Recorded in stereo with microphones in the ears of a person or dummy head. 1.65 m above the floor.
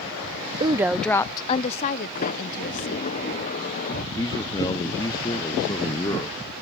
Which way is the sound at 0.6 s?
30° right (ahead or behind).